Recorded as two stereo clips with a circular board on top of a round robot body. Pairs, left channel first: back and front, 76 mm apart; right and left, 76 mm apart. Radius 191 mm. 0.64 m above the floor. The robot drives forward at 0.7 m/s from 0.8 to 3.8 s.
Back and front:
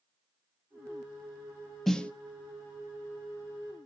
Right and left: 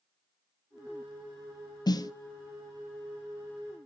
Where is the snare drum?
95° right, 0.9 m; by 2.1 s 110° right, 0.9 m.